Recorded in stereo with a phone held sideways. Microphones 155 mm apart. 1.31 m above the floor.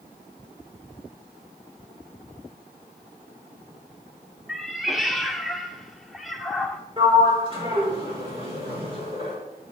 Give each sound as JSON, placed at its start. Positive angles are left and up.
{"t": 4.5, "sound": "a cat meowing", "side_deg": 0, "distance_m": 0.9}
{"t": 7.0, "sound": "a sliding door", "side_deg": -35, "distance_m": 4.0}